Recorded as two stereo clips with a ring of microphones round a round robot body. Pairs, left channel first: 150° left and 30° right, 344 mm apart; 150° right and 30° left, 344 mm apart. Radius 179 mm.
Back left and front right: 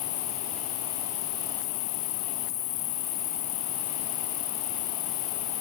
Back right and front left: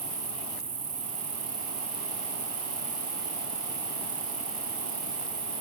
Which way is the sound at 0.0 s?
105° left.